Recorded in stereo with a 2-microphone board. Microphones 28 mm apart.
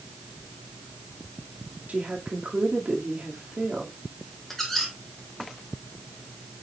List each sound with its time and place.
1.9 s a woman speaking: 50° right (ahead or behind), 1.9 m
4.5 s a squeak: 10° left (ahead or behind), 2 m